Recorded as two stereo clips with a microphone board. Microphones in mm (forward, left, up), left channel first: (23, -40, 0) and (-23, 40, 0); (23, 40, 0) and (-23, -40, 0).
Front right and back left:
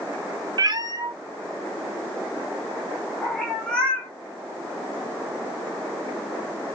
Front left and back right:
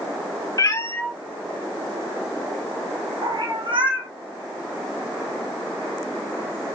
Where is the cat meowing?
100° left, 0.6 m; by 4.1 s 140° right, 1.8 m.